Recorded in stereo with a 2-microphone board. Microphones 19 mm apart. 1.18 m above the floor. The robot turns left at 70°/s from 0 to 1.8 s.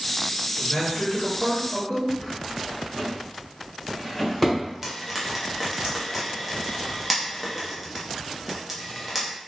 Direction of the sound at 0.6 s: 60° left.